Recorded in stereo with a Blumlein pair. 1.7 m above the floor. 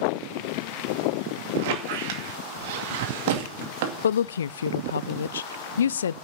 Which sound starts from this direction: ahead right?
A squeak, at 1.6 s.